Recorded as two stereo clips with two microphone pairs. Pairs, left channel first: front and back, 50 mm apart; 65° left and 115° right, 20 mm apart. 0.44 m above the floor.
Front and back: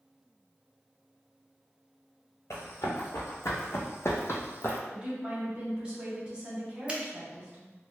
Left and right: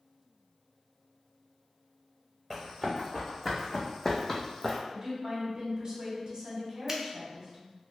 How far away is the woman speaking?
About 1.1 m.